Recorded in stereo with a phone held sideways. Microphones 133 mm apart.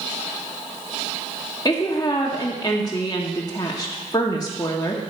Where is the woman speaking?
30° left (ahead or behind), 1.2 m.